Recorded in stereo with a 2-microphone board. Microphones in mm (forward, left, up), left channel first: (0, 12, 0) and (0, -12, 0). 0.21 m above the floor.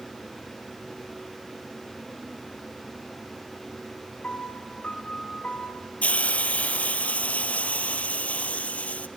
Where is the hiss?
80° left, 1.3 m.